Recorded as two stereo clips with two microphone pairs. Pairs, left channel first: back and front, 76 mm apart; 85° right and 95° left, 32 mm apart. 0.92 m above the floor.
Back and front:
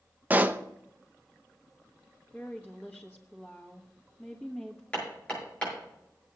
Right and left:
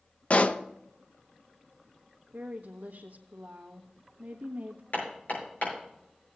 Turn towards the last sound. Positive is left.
turn(degrees=-105)